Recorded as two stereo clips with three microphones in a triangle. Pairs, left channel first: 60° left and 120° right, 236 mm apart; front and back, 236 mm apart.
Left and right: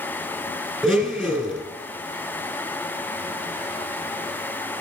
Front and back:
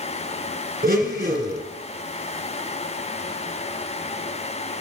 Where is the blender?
150° left, 1.5 m.